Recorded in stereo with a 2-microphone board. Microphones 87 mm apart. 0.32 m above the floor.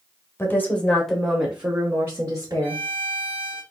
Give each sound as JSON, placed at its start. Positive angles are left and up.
{"t": 0.4, "sound": "a woman speaking", "side_deg": 25, "distance_m": 1.2}
{"t": 2.6, "sound": "a violin", "side_deg": 20, "distance_m": 1.2}